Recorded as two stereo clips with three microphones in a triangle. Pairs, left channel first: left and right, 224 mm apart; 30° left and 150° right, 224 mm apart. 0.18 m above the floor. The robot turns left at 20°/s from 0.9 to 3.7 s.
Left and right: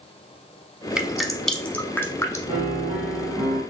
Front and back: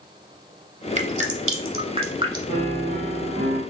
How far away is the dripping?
About 0.7 m.